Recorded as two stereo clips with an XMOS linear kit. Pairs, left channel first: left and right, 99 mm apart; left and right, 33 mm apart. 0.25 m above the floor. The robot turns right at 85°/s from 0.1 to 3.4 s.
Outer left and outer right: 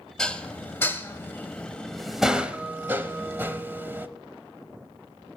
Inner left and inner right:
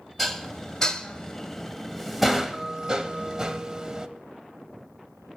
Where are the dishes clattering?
5° left (ahead or behind), 0.6 m; by 4.1 s 20° right (ahead or behind), 0.6 m.